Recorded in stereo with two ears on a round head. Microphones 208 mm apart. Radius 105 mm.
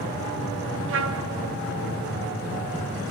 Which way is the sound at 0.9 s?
60° right (ahead or behind).